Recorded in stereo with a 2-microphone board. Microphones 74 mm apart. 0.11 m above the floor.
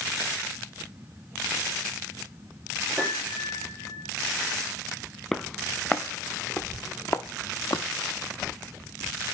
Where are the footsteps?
10° left (ahead or behind), 1.6 m; by 7.8 s 65° left (ahead or behind), 1.6 m.